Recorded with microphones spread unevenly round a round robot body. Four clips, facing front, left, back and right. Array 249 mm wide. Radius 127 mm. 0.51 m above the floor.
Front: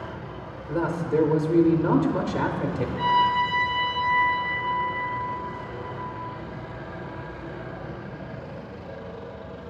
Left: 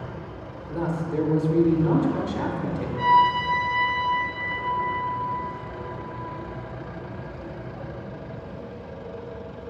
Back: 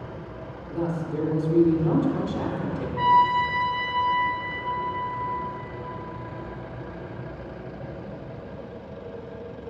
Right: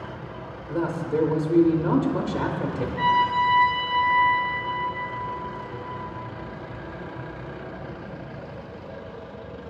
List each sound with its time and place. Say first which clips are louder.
0.7 s a man speaking: right 2 dB, front 4 dB; 35° right, 0.8 m
3.0 s a trumpet: left 3 dB, back 3 dB; 170° right, 1.6 m